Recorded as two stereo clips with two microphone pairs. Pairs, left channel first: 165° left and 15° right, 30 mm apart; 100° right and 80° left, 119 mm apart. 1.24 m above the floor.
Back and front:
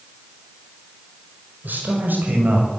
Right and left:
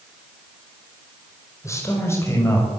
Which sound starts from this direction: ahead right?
A man speaking, at 1.6 s.